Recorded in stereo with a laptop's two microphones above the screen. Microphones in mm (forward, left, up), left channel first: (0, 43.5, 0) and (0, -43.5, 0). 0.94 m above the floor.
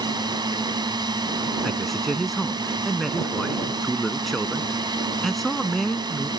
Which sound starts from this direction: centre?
A man speaking, at 1.6 s.